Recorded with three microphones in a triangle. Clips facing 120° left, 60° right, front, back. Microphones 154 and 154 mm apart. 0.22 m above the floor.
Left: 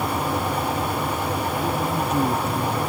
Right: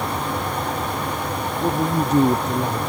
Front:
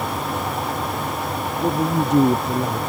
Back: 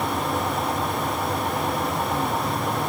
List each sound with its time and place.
1.6 s a man speaking: 5° right